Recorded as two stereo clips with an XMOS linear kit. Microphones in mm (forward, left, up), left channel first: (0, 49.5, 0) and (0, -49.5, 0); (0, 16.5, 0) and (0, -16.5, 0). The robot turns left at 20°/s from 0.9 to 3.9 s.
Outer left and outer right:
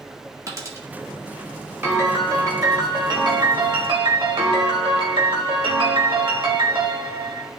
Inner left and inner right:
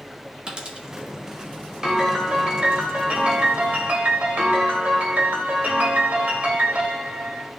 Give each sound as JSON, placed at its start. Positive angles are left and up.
{"t": 0.5, "sound": "a dropped coin", "side_deg": -30, "distance_m": 1.6}
{"t": 1.8, "sound": "a piano", "azimuth_deg": -25, "distance_m": 1.5}